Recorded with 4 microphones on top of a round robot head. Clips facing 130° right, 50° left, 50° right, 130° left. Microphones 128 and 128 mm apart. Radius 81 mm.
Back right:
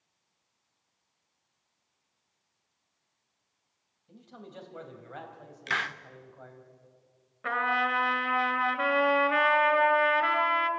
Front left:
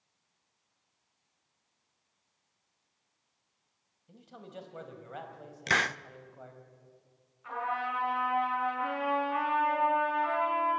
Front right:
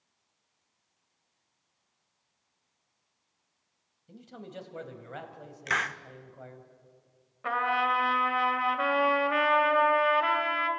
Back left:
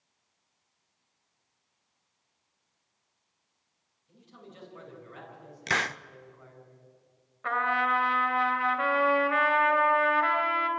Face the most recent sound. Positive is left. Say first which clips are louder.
# back right 5 dB, even
turn(degrees=-125)